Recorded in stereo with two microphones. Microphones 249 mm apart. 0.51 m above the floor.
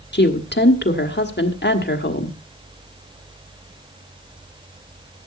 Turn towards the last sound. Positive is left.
turn(degrees=45)  # may be behind; listen again after turning